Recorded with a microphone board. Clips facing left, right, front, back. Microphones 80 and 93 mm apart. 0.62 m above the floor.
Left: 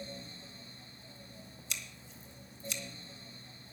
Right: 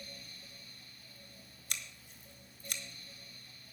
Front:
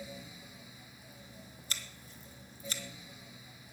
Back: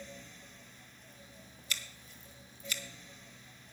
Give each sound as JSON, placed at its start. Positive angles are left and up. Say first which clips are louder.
{"t": 1.7, "sound": "scissors", "louder": "right 1 dB, back 2 dB", "azimuth_deg": -55, "distance_m": 1.5}